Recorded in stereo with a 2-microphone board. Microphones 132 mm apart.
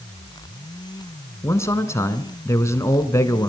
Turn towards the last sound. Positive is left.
turn(degrees=20)  # may be behind; listen again after turning